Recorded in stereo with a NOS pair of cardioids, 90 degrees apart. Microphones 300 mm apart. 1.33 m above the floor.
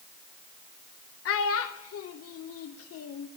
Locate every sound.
1.2 s a child speaking: 55° left, 0.8 m